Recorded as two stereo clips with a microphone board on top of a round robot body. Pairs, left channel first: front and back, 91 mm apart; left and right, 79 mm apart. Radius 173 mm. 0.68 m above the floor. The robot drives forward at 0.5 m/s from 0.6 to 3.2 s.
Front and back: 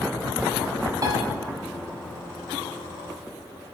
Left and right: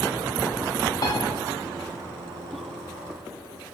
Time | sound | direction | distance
1.0 | a piano | 130° left | 0.9 m